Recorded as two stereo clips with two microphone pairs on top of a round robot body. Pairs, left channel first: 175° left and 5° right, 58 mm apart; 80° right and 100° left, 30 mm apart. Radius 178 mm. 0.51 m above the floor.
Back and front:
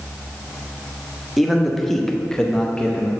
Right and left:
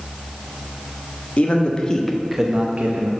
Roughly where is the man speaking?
Right.